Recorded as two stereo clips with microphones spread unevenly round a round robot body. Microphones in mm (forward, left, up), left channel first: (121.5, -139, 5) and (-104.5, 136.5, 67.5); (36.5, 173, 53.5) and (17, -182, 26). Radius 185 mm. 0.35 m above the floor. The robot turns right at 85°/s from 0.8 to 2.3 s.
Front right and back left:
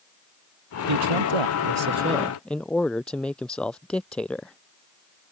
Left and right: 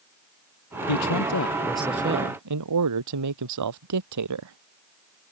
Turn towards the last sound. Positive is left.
turn(degrees=-140)